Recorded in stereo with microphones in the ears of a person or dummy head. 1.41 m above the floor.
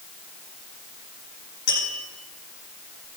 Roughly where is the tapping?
Left.